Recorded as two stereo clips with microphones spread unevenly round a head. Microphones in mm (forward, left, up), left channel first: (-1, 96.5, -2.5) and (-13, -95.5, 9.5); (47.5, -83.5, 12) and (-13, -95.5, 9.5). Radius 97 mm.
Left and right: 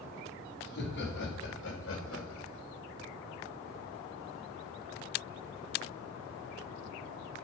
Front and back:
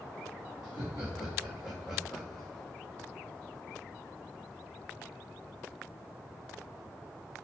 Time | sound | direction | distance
0.6 | laughter | 120° left | 3.5 m